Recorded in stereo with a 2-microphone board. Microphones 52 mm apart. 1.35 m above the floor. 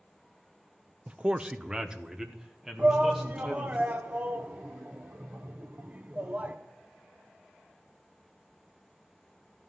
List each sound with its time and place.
1.1 s a man speaking: 25° right (ahead or behind), 0.5 m; by 3.8 s 5° right (ahead or behind), 2.5 m
2.8 s a shout: 30° right (ahead or behind), 0.8 m